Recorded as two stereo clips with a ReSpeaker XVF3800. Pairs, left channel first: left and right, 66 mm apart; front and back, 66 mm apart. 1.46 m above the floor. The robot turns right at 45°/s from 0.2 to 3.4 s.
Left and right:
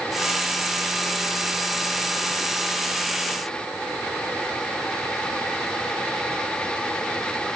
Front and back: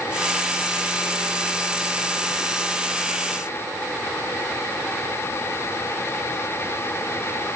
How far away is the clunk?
I don't hear a clunk.